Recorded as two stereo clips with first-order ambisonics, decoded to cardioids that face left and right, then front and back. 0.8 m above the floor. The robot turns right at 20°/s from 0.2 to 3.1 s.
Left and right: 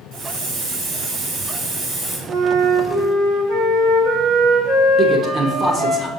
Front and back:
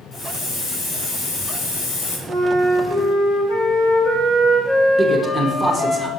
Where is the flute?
70° right, 1.6 m; by 6.0 s 50° right, 1.6 m.